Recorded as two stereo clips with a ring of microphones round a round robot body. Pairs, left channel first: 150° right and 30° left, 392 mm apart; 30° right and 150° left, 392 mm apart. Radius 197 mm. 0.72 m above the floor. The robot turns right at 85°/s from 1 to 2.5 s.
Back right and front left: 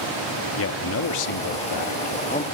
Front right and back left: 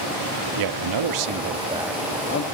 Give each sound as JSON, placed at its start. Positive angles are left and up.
{"t": 0.6, "sound": "a man speaking", "azimuth_deg": 160, "distance_m": 1.5}